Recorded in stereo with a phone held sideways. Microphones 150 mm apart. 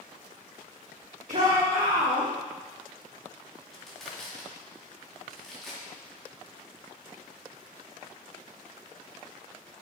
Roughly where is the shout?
Right.